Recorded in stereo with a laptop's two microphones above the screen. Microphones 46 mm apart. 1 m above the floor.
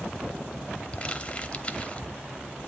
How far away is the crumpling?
About 0.9 m.